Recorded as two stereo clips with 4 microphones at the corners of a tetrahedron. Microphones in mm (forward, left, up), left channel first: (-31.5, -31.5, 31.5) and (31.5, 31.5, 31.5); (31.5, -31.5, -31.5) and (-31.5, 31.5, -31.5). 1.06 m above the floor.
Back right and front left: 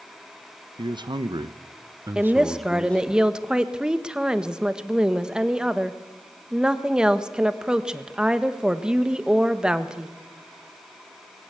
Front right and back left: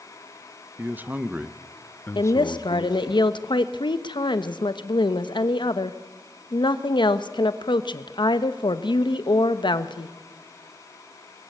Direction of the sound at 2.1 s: 35° right.